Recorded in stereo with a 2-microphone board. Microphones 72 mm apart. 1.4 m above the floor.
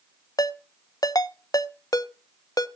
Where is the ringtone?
55° left (ahead or behind), 0.7 m.